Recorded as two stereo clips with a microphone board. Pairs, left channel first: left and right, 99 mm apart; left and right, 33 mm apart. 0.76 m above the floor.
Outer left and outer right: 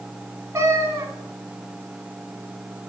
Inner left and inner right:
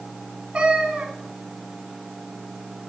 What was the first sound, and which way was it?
A cat meowing, 30° right (ahead or behind).